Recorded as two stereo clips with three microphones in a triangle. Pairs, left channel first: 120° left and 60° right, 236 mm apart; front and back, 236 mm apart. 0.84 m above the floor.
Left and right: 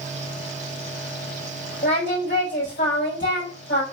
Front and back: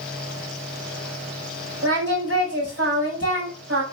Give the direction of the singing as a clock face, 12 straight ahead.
7 o'clock.